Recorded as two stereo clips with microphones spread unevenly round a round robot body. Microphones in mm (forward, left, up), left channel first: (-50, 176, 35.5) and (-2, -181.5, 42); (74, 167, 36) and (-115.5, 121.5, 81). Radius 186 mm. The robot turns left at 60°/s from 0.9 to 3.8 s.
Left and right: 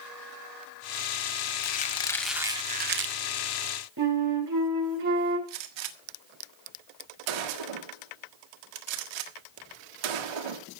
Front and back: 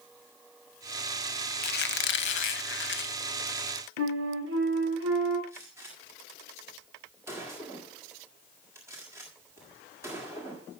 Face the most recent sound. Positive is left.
turn(degrees=-85)